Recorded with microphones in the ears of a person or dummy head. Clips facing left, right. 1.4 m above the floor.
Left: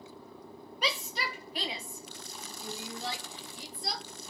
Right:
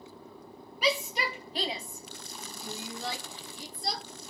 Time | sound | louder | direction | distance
0.8 | a shout | right 6 dB | centre (ahead or behind) | 0.9 m